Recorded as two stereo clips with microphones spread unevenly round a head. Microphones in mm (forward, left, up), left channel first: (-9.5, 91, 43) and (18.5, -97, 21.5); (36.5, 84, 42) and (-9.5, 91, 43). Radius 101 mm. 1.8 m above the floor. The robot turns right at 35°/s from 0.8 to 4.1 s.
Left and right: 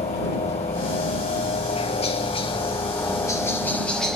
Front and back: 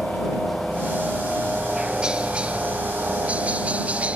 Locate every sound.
0.0 s a helicopter: 80° left; by 4.2 s 165° right